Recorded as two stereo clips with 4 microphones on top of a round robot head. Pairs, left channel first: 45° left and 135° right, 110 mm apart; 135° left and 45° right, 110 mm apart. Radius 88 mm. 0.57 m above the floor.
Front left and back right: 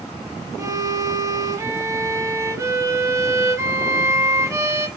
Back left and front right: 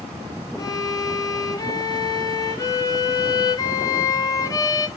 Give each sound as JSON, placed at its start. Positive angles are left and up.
{"t": 0.6, "sound": "a violin", "azimuth_deg": 175, "distance_m": 0.5}